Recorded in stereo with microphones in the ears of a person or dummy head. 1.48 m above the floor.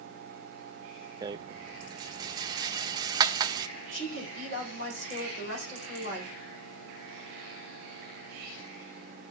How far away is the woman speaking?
About 4.5 m.